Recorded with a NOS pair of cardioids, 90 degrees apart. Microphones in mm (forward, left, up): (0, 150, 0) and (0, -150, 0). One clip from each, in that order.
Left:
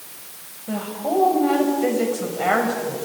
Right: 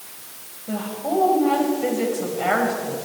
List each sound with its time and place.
0.7 s a woman speaking: 10° left, 7 m